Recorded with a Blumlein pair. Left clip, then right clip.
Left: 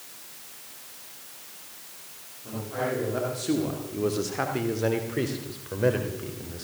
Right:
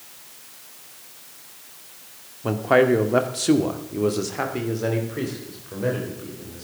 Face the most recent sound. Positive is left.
turn(degrees=20)